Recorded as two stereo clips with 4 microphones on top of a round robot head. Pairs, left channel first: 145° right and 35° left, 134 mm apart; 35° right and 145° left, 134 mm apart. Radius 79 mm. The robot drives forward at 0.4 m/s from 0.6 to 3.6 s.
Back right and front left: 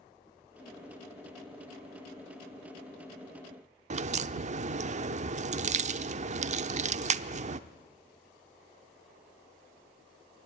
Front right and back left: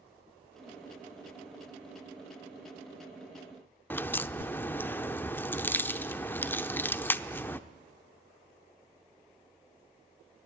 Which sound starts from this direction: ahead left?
A crack, at 3.9 s.